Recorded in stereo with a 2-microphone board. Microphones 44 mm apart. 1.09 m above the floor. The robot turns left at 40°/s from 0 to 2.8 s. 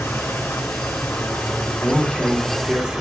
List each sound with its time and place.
0.0 s an engine running: 115° left, 2.5 m; by 3.0 s 5° left, 2.5 m
1.8 s a man speaking: 25° left, 3.5 m; by 3.0 s 15° right, 3.5 m